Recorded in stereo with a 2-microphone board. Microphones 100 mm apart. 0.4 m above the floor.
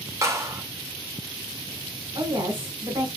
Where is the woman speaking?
55° right (ahead or behind), 1.5 m.